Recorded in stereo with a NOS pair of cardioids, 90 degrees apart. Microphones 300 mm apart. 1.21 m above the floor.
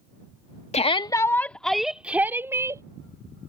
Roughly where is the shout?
Ahead.